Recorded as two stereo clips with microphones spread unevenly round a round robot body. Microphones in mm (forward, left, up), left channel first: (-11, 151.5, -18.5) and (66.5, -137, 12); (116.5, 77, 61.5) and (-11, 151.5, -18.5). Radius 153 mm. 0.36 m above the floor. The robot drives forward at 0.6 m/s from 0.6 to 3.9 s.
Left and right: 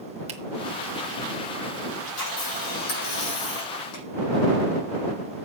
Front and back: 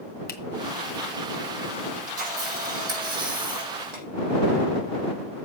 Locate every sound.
0.3 s a finger snap: 5° right, 1.6 m
2.1 s a camera shutter: 140° left, 5.5 m; by 4.0 s 145° left, 6 m